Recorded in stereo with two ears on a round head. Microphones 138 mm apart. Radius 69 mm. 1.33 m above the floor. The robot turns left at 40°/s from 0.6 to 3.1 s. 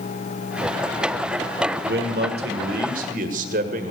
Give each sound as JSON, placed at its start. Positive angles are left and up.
{"t": 1.9, "sound": "a man speaking", "azimuth_deg": -70, "distance_m": 1.5}